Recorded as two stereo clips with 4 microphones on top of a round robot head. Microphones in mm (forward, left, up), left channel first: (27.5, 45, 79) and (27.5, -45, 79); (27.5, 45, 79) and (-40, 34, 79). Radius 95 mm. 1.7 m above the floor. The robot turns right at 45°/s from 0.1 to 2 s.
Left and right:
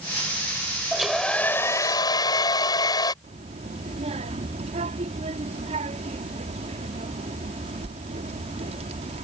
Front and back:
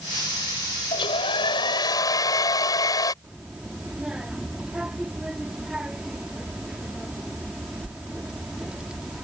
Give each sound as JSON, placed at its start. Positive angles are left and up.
{"t": 0.9, "sound": "a hair dryer", "azimuth_deg": -5}
{"t": 3.2, "sound": "a child speaking", "azimuth_deg": -90}